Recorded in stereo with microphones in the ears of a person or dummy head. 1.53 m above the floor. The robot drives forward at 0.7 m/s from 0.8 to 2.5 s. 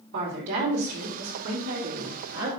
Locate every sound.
0.1 s a woman speaking: 70° right (ahead or behind), 3.5 m; by 2.5 s 85° right, 3 m